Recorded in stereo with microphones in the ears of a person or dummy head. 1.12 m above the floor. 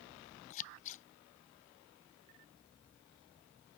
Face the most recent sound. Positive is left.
turn(degrees=40)  # may be behind; listen again after turning